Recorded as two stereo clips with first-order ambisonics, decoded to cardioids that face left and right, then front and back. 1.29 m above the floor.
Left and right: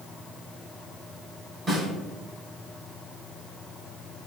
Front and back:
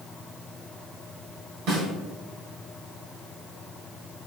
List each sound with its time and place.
1.7 s a snare drum: 155° right, 1.9 m